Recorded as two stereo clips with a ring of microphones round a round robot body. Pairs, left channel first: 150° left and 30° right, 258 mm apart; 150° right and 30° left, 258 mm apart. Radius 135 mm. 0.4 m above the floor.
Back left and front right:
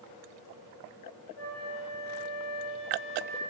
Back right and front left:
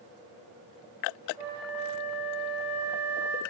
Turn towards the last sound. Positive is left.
turn(degrees=-175)